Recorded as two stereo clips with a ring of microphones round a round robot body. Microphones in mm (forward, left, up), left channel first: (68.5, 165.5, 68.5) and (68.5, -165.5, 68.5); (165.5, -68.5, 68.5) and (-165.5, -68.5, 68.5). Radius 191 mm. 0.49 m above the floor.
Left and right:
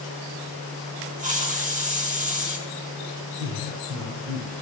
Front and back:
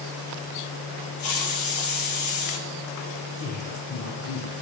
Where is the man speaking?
40° right, 8 m.